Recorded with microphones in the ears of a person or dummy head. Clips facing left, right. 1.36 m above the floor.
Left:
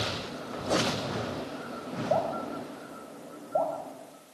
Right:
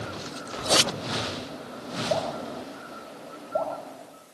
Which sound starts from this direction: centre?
Dripping, at 2.1 s.